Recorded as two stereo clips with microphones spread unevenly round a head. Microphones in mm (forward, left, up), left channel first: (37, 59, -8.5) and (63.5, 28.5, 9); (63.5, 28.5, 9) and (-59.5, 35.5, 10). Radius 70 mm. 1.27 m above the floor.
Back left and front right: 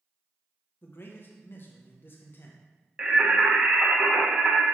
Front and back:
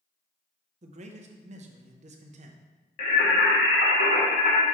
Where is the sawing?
I don't hear sawing.